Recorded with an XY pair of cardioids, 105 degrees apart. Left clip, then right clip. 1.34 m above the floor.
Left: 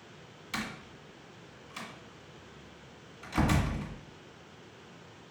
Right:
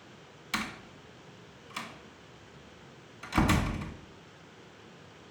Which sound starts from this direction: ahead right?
A door slam, at 0.5 s.